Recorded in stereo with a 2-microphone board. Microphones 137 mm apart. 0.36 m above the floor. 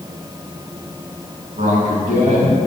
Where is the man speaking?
65° right (ahead or behind), 2.5 m; by 2.6 s 70° right (ahead or behind), 3 m.